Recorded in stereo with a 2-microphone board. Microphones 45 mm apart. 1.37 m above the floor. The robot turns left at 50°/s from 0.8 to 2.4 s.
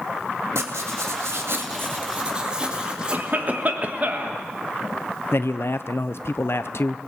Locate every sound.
0.6 s writing: 80° right, 2.5 m; by 3.2 s 160° right, 2.5 m
3.1 s a cough: 40° right (ahead or behind), 1.6 m
5.3 s a man speaking: 60° left (ahead or behind), 0.6 m